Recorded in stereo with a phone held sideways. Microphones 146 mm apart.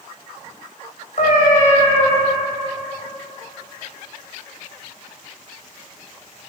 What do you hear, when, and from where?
1.2 s a cat meowing: 65° left (ahead or behind), 2.5 m